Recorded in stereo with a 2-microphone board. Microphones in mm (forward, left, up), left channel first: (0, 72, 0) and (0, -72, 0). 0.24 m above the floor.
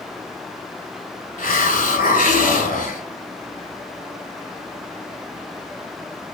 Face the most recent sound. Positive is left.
turn(degrees=85)